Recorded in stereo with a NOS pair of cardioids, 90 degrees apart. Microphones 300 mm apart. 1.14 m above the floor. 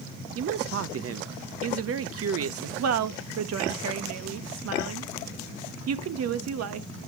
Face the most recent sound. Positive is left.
turn(degrees=-55)